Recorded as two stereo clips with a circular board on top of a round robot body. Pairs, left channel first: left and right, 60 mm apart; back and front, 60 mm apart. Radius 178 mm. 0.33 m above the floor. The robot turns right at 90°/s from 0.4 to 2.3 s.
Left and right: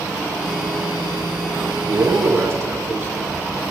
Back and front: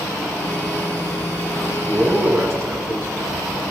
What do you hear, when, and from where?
1.6 s a man speaking: 110° right, 7 m; by 3.1 s 45° right, 7 m